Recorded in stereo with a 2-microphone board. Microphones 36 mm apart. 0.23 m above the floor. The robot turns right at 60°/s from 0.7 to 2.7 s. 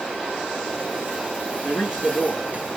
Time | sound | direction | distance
1.6 | a man speaking | 110° left | 3 m